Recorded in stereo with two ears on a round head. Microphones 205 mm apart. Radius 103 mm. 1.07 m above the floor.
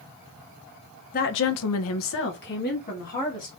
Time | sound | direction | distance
1.1 | a woman speaking | 35° left (ahead or behind) | 0.5 m